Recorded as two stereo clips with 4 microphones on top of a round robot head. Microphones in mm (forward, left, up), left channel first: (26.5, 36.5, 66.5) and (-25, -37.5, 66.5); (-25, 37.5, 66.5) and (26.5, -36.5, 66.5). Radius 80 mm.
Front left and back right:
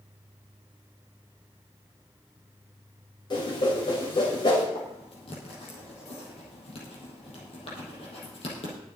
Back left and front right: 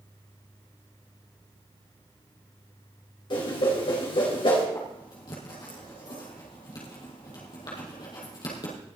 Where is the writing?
80° left, 4.5 m.